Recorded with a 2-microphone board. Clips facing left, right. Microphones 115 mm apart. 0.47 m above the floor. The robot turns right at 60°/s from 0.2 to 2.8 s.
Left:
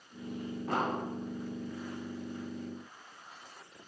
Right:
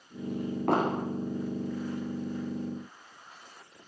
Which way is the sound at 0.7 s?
65° right (ahead or behind).